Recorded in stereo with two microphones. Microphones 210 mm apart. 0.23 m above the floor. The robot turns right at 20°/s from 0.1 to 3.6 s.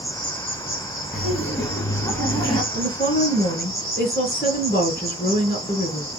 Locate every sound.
0.0 s an insect: 60° left, 2.5 m; by 6.2 s 130° left, 2.5 m
1.1 s laughter: 5° left (ahead or behind), 1.4 m; by 2.6 s 20° left (ahead or behind), 1.4 m
2.7 s a woman speaking: 60° left (ahead or behind), 2.5 m; by 6.1 s 50° left (ahead or behind), 2.5 m